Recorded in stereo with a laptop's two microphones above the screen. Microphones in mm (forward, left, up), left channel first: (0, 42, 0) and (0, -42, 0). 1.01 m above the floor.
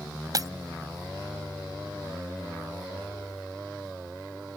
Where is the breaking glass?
50° right (ahead or behind).